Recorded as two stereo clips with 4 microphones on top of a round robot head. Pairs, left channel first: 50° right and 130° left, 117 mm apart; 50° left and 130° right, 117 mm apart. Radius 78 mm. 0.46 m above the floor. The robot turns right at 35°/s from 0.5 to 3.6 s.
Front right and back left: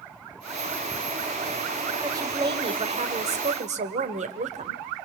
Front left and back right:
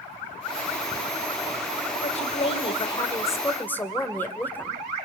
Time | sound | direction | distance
2.0 | a woman speaking | 70° left | 1.8 m